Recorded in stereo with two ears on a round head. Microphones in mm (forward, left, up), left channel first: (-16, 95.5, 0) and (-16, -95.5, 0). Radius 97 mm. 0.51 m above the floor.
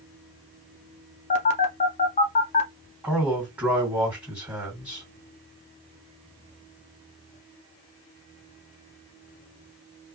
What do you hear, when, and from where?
1.3 s a phone buzzing: 30° left (ahead or behind), 0.6 m
3.0 s a man speaking: 5° right (ahead or behind), 1.7 m